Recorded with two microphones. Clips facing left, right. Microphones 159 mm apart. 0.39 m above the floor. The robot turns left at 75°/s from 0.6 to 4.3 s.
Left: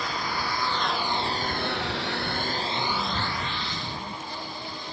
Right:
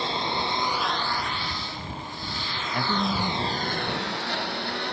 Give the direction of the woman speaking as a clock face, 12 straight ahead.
2 o'clock.